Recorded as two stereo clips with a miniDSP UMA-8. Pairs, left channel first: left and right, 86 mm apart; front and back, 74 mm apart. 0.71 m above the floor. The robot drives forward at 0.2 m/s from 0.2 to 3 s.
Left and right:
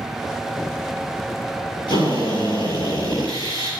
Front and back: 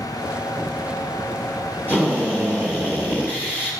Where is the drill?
120° left, 9 m.